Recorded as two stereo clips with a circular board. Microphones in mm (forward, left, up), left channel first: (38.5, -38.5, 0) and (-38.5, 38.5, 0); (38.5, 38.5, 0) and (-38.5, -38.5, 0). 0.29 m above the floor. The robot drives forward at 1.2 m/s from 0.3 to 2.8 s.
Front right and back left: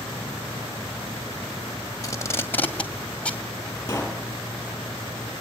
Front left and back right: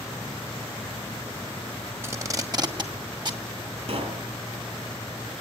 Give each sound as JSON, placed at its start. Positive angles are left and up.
{"t": 2.0, "sound": "tape being pulled", "azimuth_deg": -80, "distance_m": 2.0}
{"t": 3.9, "sound": "a pop", "azimuth_deg": -110, "distance_m": 4.5}